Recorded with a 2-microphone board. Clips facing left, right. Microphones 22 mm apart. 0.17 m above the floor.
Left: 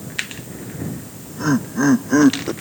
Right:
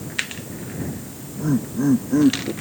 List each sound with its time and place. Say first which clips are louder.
0.8 s laughter: left 1 dB; 65° left (ahead or behind)